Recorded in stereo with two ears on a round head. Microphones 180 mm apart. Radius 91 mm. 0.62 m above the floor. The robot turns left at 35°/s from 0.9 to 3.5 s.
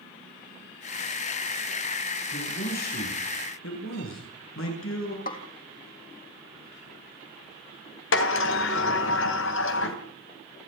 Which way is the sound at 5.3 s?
45° left (ahead or behind).